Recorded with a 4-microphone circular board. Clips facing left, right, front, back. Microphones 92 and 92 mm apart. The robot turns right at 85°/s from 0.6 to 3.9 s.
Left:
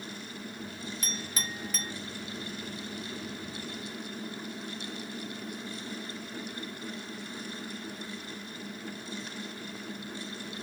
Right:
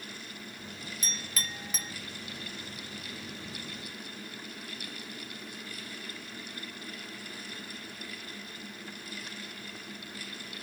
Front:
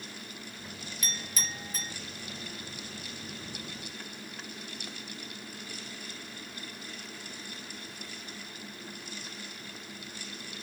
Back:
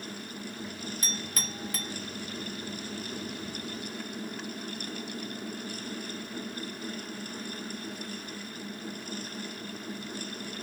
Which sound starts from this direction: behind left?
A clink, at 1.0 s.